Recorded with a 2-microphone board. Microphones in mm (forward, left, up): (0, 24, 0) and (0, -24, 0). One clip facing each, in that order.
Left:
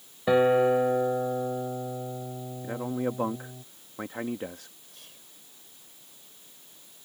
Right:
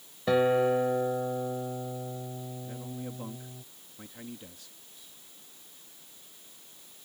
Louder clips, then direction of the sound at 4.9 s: Left 3 dB; 65° left (ahead or behind).